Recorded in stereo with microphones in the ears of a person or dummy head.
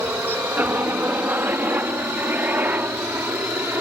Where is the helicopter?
10° right (ahead or behind).